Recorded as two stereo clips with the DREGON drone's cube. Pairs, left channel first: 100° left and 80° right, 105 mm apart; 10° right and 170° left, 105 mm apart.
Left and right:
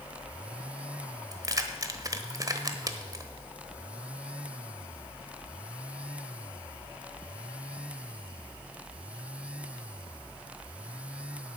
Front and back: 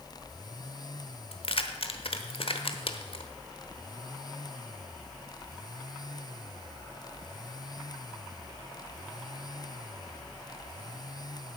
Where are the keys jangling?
30° right, 1.1 m.